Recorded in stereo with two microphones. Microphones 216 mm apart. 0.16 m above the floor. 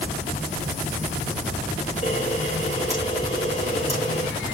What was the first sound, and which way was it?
A camera shutter, 30° left (ahead or behind).